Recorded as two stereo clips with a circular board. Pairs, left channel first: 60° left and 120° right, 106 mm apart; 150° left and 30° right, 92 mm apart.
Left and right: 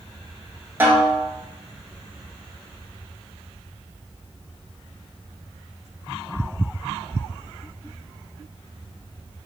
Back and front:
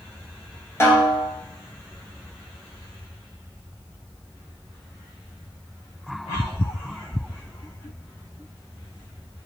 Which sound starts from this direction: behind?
A snare drum, at 0.8 s.